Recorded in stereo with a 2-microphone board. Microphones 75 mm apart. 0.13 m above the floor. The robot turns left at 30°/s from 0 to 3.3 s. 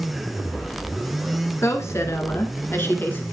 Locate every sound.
1.6 s a woman speaking: 95° left, 1.7 m; by 3.2 s 45° left, 1.7 m